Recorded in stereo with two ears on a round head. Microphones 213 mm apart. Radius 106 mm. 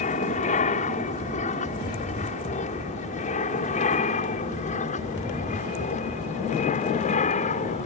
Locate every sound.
0.0 s an aircraft: 30° left (ahead or behind)